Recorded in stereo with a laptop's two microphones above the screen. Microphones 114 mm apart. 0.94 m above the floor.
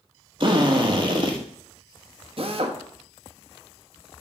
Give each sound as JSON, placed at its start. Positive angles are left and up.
{"t": 0.4, "sound": "a drill", "side_deg": -40, "distance_m": 1.4}
{"t": 2.4, "sound": "a drill", "side_deg": -50, "distance_m": 1.2}